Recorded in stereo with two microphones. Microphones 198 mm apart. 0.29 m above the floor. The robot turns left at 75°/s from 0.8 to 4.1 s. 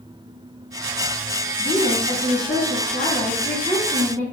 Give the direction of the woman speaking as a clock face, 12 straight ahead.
7 o'clock.